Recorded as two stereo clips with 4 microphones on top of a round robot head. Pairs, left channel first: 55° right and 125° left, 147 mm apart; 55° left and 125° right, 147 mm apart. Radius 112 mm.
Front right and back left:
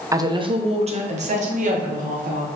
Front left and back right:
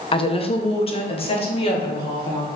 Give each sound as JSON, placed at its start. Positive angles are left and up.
{"t": 0.1, "sound": "a woman speaking", "azimuth_deg": 70, "distance_m": 0.6}